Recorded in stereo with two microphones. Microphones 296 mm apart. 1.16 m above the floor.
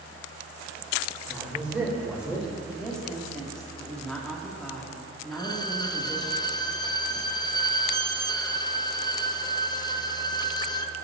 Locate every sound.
1.3 s a man speaking: 5° right (ahead or behind), 4 m
2.7 s a woman speaking: 5° left (ahead or behind), 2 m
5.3 s a violin: 15° left (ahead or behind), 0.6 m